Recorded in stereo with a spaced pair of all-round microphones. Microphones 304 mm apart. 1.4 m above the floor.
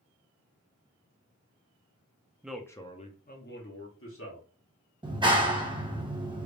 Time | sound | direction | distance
2.4 | a man speaking | 5° right (ahead or behind) | 0.6 m
5.0 | a clap | 15° right (ahead or behind) | 0.8 m